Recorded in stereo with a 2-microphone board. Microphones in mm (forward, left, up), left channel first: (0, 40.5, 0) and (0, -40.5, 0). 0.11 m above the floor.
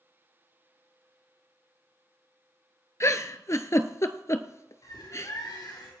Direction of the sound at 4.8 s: 65° left (ahead or behind).